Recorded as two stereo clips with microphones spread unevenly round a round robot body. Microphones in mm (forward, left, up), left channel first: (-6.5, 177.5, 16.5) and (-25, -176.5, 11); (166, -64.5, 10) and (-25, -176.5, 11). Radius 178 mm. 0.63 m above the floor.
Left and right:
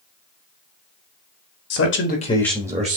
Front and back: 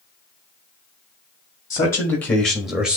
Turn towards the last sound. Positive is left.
turn(degrees=-70)